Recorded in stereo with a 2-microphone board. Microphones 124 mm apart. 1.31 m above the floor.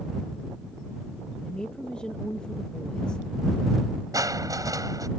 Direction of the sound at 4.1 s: 25° right (ahead or behind).